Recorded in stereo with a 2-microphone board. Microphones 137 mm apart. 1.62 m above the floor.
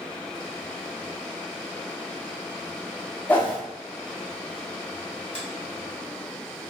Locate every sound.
3.3 s a whoosh: 15° left (ahead or behind), 0.9 m
5.3 s a finger snap: 50° left (ahead or behind), 1.3 m